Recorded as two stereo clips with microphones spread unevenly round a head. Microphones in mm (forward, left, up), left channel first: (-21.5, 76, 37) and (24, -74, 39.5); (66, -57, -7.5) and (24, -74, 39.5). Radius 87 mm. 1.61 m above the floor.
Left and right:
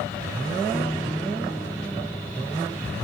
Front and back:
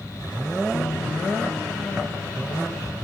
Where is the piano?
30° left.